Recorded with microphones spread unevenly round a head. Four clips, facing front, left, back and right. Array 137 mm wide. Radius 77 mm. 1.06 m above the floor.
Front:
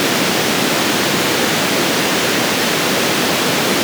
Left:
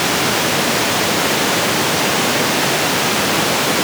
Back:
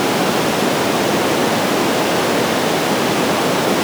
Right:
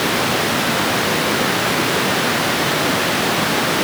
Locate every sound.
Only background noise.